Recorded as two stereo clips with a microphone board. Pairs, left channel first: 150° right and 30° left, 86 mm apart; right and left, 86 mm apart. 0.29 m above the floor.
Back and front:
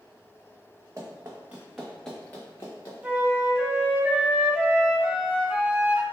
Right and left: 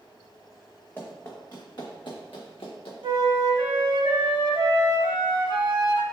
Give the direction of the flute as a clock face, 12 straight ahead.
9 o'clock.